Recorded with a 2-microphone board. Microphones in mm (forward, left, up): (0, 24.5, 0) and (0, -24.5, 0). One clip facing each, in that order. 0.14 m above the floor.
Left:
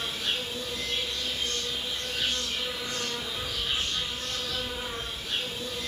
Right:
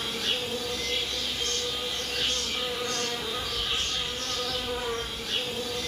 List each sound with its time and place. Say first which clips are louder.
0.0 s an insect: right 1 dB; 60° right (ahead or behind), 1.1 m
3.3 s a bird: right 1 dB; 20° left (ahead or behind), 2.5 m